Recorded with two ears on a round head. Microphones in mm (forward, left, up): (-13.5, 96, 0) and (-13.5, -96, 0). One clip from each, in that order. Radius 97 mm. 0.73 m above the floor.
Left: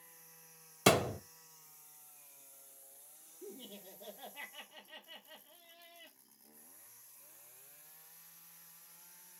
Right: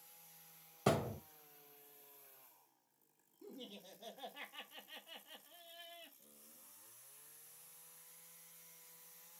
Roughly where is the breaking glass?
I don't hear breaking glass.